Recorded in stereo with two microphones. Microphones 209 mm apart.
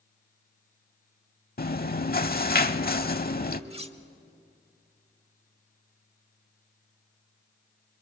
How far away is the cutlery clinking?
About 0.9 m.